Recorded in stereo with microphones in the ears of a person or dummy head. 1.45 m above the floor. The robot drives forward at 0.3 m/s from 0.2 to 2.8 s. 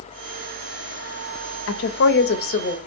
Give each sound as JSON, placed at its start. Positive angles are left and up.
{"t": 1.7, "sound": "a woman speaking", "side_deg": 65, "distance_m": 0.5}